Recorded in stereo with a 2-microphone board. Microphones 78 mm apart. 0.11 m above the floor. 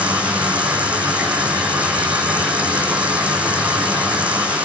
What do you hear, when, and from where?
0.0 s running water: 15° right (ahead or behind), 5 m